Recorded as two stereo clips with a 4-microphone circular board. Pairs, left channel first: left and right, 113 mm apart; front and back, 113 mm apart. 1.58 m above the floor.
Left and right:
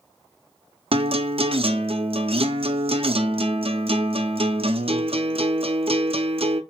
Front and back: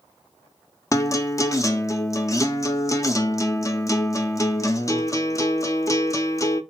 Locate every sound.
0.9 s a guitar: 60° right, 0.5 m